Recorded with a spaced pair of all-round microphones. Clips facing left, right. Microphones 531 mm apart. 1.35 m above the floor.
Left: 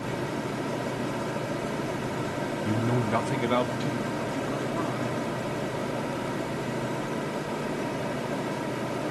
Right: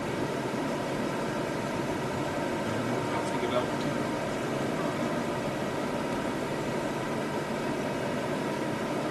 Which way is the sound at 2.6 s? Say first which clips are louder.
Left 4 dB; 70° left (ahead or behind).